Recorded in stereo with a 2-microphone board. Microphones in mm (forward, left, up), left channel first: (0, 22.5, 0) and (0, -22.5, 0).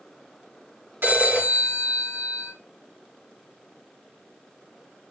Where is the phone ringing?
50° right (ahead or behind), 4 m.